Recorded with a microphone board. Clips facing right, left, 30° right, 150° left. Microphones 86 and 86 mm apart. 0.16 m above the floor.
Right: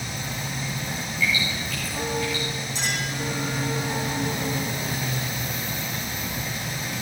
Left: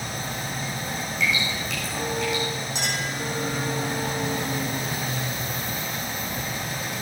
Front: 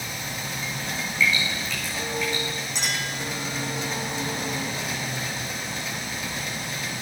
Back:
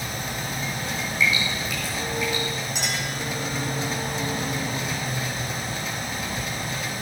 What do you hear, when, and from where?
1.2 s dripping: 75° left, 5 m
2.8 s a clink: 70° left, 6 m